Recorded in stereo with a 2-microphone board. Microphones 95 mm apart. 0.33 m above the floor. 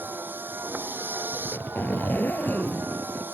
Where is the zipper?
20° left (ahead or behind).